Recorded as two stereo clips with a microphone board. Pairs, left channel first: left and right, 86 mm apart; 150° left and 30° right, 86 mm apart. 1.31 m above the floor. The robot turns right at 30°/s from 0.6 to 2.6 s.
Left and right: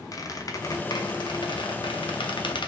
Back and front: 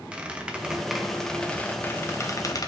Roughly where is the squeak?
Ahead left.